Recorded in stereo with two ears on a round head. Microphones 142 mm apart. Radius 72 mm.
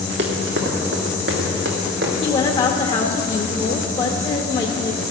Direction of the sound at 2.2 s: 30° left (ahead or behind).